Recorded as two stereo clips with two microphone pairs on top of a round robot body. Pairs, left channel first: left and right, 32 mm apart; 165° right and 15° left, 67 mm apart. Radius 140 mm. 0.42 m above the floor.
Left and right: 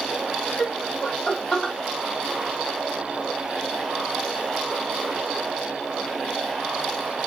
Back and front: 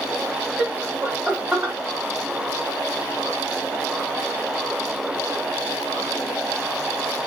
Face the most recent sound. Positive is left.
turn(degrees=90)